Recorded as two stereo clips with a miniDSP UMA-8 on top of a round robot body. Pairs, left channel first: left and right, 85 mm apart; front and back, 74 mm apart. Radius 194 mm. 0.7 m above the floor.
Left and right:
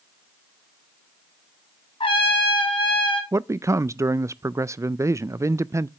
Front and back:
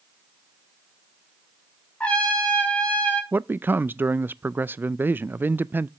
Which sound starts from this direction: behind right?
A man speaking, at 3.3 s.